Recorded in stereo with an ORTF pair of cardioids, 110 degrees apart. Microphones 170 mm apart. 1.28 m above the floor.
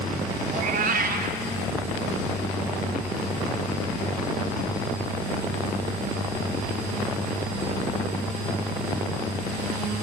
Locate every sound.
0.5 s a cat meowing: 60° right, 1.9 m